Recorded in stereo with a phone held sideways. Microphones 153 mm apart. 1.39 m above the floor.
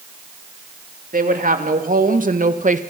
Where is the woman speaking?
65° right (ahead or behind), 3 m; by 2.8 s 55° right (ahead or behind), 1.6 m.